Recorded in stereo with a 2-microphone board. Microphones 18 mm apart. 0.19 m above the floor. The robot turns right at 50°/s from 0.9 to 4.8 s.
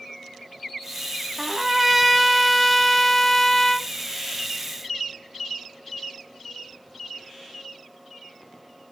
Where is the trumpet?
15° right (ahead or behind), 1.0 m; by 3.9 s 20° left (ahead or behind), 1.0 m.